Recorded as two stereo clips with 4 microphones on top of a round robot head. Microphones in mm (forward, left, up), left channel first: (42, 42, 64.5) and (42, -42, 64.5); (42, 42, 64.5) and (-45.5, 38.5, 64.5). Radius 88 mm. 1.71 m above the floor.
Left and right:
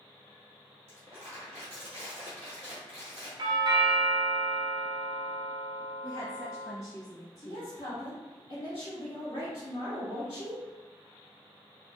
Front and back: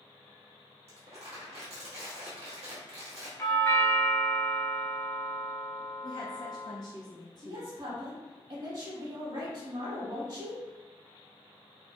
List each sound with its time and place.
0.9 s crumpling: 160° right, 1.0 m
3.4 s a doorbell: 60° right, 0.8 m
6.0 s a woman speaking: 30° left, 1.3 m
7.4 s a woman speaking: 140° left, 1.3 m